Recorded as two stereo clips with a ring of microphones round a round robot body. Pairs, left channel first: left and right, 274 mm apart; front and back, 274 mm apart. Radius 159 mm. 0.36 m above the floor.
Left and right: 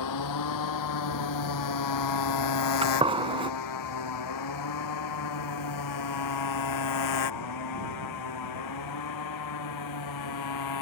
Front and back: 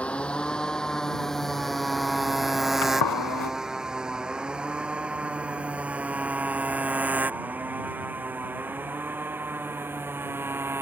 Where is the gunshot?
20° right.